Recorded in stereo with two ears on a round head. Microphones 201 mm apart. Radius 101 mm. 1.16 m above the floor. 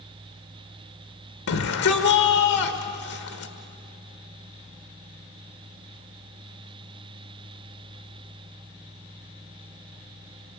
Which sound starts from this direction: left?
A shout, at 1.5 s.